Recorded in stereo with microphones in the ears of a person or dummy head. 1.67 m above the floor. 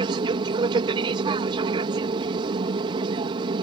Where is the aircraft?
25° right (ahead or behind).